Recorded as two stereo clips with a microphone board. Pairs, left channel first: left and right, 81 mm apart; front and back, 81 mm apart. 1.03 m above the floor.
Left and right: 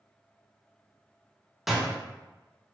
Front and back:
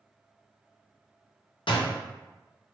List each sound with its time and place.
1.7 s a door slam: straight ahead, 0.6 m